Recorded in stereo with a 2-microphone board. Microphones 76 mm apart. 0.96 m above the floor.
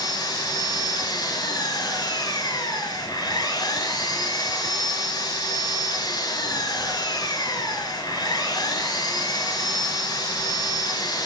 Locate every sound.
0.0 s an engine running: 60° left (ahead or behind), 5.5 m